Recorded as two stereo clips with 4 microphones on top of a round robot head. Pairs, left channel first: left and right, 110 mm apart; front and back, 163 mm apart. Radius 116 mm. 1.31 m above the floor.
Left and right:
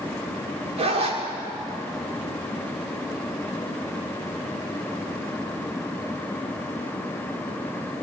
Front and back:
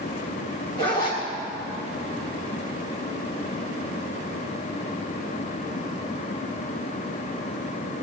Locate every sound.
0.8 s a zipper: 65° right, 1.8 m